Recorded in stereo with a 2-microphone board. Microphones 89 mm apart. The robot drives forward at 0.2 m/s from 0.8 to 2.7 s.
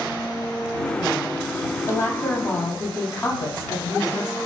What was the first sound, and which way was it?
A woman speaking, 25° left (ahead or behind).